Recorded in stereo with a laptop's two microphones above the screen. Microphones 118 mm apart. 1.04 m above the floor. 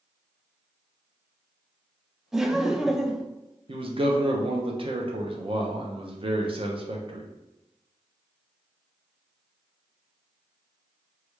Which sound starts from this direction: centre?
Laughter, at 2.3 s.